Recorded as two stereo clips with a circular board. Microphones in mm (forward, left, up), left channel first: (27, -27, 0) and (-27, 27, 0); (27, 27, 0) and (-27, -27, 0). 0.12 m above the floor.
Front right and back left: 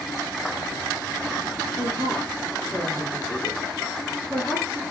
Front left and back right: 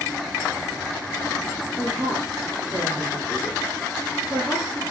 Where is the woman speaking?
70° right, 1.3 m.